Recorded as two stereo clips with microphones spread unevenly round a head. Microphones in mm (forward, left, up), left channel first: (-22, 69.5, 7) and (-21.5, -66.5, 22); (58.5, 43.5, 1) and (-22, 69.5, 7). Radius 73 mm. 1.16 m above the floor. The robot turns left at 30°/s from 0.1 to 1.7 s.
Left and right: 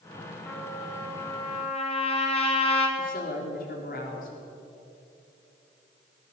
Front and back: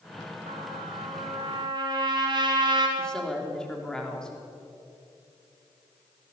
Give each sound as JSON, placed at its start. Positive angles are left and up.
{"t": 0.5, "sound": "a trumpet", "azimuth_deg": 170, "distance_m": 4.0}
{"t": 3.0, "sound": "a woman speaking", "azimuth_deg": 65, "distance_m": 3.5}